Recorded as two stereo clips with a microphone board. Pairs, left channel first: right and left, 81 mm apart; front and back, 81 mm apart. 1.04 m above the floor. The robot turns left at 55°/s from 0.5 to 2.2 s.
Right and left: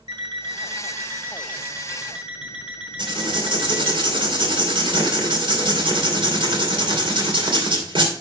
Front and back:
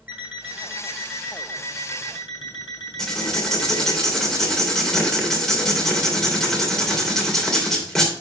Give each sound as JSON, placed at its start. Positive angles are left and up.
{"t": 0.1, "sound": "an alarm clock", "azimuth_deg": 105, "distance_m": 4.0}
{"t": 3.0, "sound": "writing", "azimuth_deg": 85, "distance_m": 2.5}